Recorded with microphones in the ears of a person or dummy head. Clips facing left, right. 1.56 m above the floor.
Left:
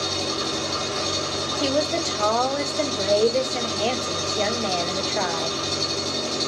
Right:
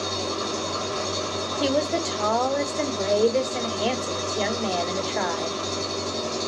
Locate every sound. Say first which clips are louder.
0.0 s an engine running: left 1 dB; 20° left (ahead or behind), 1.2 m
1.6 s a woman speaking: even; centre (ahead or behind), 0.9 m